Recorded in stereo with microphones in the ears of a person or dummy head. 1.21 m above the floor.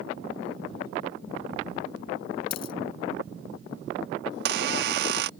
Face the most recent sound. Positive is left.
turn(degrees=-70)  # may be behind; listen again after turning